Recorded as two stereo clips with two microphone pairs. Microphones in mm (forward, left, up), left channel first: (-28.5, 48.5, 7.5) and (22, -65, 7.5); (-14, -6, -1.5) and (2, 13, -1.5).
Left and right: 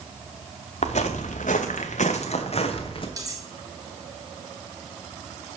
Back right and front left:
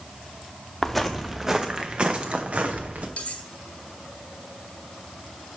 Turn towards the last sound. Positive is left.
turn(degrees=-120)